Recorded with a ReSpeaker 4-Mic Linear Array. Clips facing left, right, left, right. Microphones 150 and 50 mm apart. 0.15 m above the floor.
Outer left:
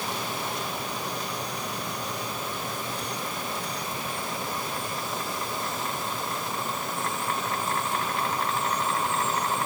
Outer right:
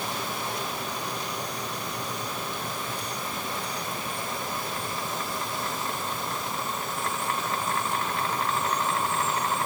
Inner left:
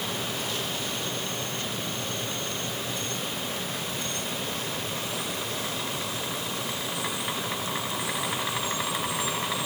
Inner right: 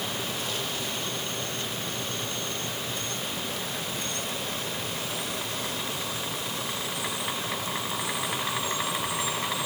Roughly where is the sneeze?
No sneeze in this recording.